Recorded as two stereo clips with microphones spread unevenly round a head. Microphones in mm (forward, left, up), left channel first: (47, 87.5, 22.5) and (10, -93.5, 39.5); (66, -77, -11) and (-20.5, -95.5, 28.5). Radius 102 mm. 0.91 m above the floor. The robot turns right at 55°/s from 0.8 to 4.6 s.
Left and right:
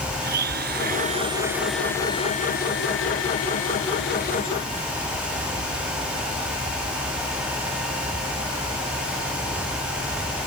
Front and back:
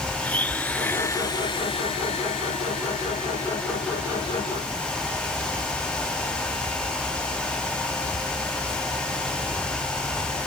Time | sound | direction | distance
0.2 | a blender | 60° right | ?